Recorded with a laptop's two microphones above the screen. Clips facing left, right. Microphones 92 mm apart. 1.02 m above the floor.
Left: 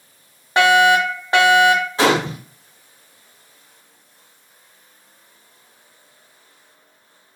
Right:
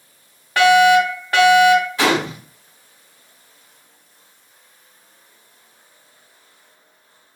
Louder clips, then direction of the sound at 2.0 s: Left 2 dB; 30° left (ahead or behind).